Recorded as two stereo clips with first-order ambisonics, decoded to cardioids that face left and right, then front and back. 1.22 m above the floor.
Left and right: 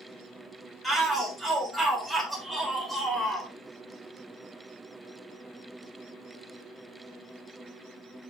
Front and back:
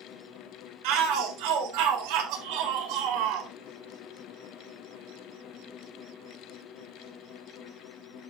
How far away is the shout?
About 4 m.